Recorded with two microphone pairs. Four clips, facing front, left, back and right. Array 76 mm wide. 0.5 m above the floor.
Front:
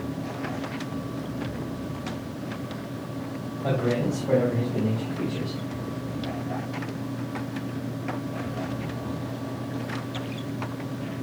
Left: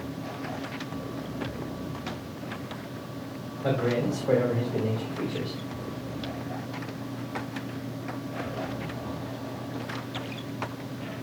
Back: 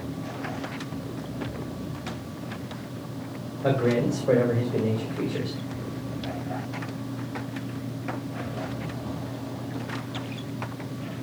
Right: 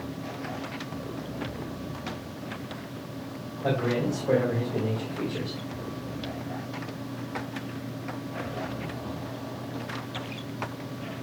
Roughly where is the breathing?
I don't hear breathing.